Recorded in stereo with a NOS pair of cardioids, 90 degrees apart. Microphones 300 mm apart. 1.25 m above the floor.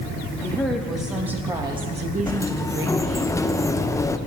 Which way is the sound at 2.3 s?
10° left.